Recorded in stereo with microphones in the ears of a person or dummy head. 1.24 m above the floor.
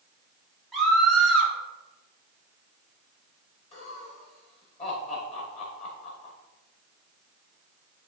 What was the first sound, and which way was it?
A scream, 5° left (ahead or behind).